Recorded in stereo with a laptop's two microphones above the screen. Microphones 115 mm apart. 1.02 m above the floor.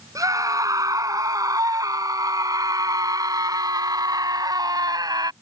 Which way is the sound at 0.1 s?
30° right (ahead or behind).